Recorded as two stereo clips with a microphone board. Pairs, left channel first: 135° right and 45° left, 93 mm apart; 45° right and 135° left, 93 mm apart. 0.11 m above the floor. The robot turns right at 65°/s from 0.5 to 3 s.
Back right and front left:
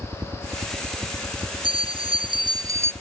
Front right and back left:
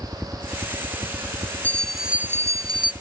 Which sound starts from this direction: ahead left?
A bell, at 1.6 s.